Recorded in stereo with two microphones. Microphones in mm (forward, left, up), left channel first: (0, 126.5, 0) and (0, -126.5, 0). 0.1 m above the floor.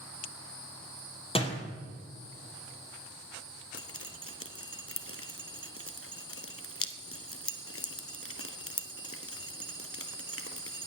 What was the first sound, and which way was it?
A door slam, 20° left (ahead or behind).